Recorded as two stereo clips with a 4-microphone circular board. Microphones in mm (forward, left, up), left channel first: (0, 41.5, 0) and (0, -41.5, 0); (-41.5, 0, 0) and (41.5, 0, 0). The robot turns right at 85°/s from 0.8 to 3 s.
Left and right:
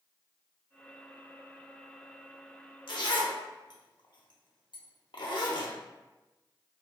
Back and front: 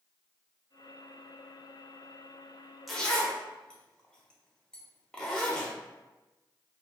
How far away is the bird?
No bird in this recording.